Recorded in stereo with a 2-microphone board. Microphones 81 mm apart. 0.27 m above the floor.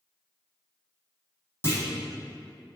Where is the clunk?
30° left (ahead or behind), 1.4 m.